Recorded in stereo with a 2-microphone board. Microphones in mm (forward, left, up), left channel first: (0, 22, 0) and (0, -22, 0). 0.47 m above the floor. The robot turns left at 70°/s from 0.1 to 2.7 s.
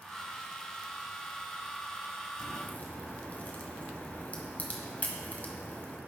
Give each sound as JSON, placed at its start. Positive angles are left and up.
{"t": 2.4, "sound": "a crack", "side_deg": 55, "distance_m": 1.2}